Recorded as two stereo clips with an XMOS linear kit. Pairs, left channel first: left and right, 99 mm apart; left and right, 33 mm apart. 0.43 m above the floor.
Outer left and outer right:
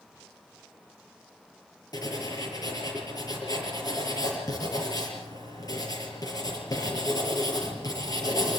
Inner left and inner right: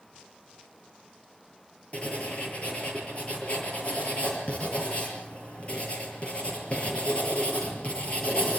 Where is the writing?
40° left (ahead or behind), 7 m.